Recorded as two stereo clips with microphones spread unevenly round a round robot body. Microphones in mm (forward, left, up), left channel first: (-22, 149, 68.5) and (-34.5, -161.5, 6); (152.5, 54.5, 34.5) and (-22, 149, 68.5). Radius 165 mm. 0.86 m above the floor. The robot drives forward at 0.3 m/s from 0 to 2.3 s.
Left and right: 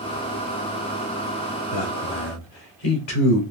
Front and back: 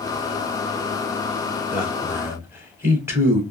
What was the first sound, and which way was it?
A man speaking, 65° left.